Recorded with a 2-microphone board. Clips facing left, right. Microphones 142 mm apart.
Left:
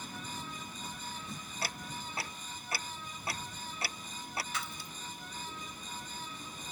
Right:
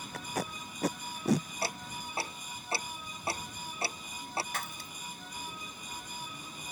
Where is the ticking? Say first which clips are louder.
Right 3 dB; 25° right (ahead or behind).